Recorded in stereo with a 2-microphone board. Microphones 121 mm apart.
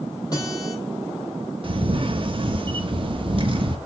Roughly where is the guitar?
Left.